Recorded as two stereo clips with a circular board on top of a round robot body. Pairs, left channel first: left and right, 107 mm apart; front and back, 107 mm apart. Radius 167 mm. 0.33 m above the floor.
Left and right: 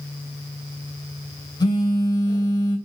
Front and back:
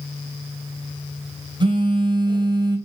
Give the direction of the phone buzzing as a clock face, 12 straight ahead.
7 o'clock.